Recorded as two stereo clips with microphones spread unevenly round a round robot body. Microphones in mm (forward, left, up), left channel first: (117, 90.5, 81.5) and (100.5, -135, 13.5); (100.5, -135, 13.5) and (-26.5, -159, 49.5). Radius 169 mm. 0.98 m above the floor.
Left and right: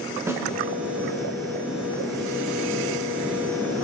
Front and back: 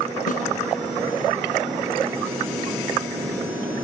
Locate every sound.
0.3 s a snare drum: 10° right, 2.5 m